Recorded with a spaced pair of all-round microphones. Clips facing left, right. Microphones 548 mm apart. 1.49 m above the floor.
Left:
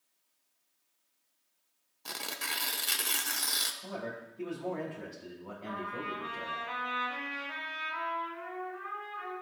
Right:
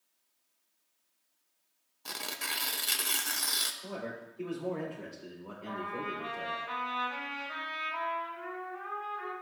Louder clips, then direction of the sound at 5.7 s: Right 1 dB; 75° left (ahead or behind).